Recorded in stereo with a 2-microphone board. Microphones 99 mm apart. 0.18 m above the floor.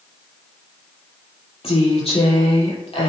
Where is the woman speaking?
65° left (ahead or behind), 4.5 m.